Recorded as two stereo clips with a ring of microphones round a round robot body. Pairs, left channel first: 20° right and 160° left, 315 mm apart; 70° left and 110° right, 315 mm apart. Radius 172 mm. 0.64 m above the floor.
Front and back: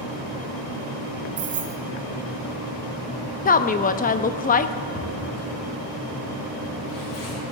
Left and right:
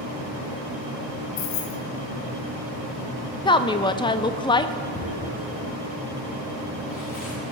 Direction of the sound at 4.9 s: 5° left.